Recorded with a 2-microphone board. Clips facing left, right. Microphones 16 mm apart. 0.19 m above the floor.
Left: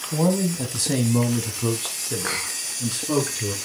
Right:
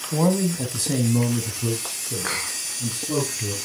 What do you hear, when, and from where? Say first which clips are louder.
0.1 s a man speaking: right 1 dB; 20° right (ahead or behind), 1.1 m; by 3.5 s 60° left (ahead or behind), 2.5 m